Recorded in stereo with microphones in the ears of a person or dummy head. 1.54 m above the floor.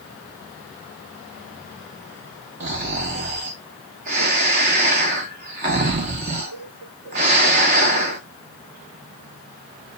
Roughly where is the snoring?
Right.